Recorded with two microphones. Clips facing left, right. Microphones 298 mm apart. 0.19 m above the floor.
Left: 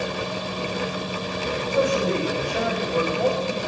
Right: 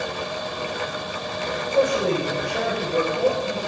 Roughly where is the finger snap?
I don't hear a finger snap.